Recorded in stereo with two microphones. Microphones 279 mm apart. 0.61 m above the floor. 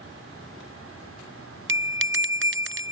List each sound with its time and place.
1.7 s a bell: 45° right (ahead or behind)